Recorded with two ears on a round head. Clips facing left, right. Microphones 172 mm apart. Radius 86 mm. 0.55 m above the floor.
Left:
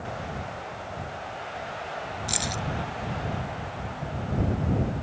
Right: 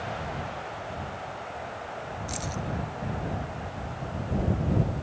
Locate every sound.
2.3 s keys jangling: 80° left